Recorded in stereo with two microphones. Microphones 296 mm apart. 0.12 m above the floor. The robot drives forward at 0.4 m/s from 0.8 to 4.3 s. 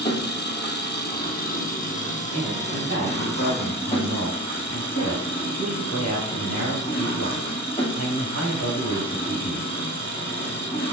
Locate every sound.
0.0 s an engine running: 35° left (ahead or behind), 1.5 m; by 10.9 s 20° left (ahead or behind), 2.5 m
2.3 s a man speaking: 60° left (ahead or behind), 2.5 m; by 9.6 s 50° left (ahead or behind), 3 m